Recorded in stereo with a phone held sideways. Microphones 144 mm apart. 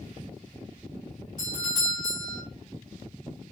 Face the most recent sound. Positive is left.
turn(degrees=-25)  # may be behind; listen again after turning